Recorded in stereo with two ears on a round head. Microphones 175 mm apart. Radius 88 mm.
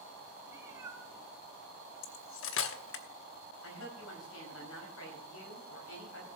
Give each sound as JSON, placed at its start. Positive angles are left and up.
{"t": 0.5, "sound": "a cat meowing", "side_deg": -15, "distance_m": 3.5}
{"t": 2.0, "sound": "cutlery clinking", "side_deg": 70, "distance_m": 1.0}
{"t": 3.6, "sound": "a woman speaking", "side_deg": 75, "distance_m": 4.5}